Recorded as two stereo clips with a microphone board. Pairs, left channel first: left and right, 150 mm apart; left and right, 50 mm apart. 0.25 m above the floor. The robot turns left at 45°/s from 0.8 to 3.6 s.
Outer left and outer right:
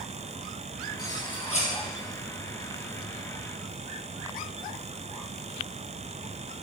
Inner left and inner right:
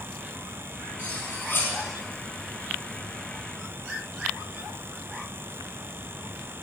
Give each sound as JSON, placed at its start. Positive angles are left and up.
{"t": 1.0, "sound": "cutlery clinking", "azimuth_deg": 160, "distance_m": 4.0}